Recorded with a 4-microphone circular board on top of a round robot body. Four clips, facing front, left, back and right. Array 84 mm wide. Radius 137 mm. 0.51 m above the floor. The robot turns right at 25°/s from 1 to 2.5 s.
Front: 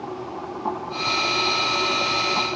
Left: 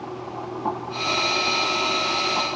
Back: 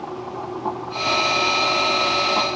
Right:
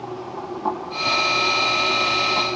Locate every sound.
Only background noise.